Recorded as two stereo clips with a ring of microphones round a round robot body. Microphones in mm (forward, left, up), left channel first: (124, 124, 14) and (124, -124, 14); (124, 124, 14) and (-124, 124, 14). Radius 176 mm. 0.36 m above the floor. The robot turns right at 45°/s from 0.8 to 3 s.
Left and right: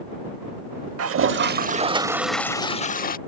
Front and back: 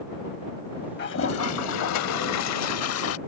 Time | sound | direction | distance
1.0 | a toilet flushing | 60° right | ?